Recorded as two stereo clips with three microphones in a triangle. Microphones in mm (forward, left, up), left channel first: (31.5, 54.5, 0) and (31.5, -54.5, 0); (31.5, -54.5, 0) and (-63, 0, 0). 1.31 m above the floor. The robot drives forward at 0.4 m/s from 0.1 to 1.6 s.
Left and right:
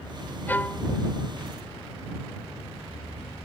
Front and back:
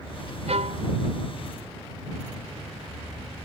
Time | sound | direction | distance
0.5 | a violin | 165° left | ?